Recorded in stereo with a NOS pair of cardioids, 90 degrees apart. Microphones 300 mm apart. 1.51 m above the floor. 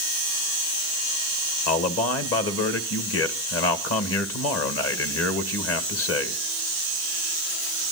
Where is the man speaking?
50° left, 1.8 m.